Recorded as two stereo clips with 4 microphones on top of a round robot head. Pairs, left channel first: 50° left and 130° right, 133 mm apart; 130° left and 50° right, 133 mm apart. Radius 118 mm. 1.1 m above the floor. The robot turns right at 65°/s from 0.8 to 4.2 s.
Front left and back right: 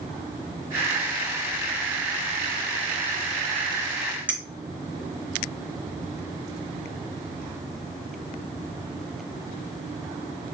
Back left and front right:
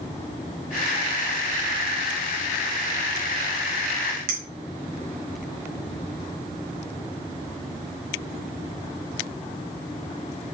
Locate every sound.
4.3 s a clink: 50° right, 0.9 m